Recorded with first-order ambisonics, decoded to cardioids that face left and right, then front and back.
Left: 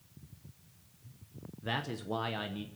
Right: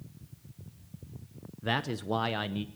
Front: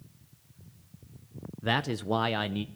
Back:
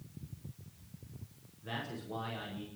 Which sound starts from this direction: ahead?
A man speaking, at 1.6 s.